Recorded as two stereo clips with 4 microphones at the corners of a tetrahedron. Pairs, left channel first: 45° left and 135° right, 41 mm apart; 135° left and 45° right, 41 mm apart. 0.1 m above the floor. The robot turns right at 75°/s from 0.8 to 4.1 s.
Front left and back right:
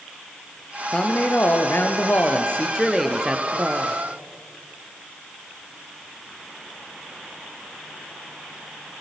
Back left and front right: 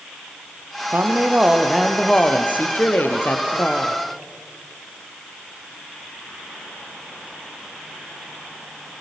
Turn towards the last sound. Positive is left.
turn(degrees=-140)